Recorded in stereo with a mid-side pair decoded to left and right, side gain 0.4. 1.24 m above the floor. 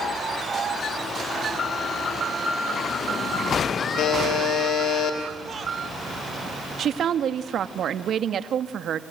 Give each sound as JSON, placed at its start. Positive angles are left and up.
{"t": 4.0, "sound": "a buzzer", "azimuth_deg": 70, "distance_m": 4.5}
{"t": 6.8, "sound": "a woman speaking", "azimuth_deg": -65, "distance_m": 1.5}